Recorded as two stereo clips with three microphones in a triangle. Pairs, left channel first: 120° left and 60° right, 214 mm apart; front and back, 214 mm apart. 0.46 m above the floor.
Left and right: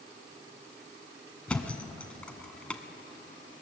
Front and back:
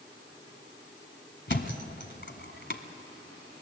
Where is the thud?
35° left, 1.4 m.